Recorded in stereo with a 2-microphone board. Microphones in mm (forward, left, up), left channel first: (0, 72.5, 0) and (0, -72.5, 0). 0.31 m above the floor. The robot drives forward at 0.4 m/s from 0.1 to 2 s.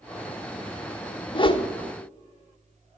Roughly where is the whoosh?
Left.